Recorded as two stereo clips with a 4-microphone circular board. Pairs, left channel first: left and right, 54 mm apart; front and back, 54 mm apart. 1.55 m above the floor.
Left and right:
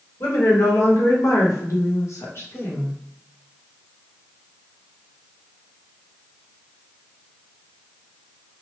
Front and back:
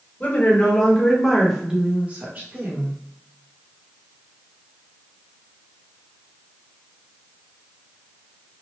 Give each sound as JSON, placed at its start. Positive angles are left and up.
{"t": 0.2, "sound": "a woman speaking", "azimuth_deg": 60, "distance_m": 1.1}